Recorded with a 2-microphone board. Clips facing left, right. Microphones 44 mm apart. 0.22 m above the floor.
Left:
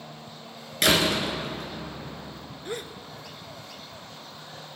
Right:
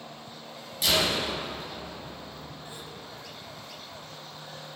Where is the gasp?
80° left, 0.8 m.